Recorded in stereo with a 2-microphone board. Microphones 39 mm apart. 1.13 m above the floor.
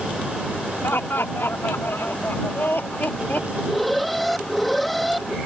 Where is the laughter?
80° left; by 3.4 s 50° left (ahead or behind).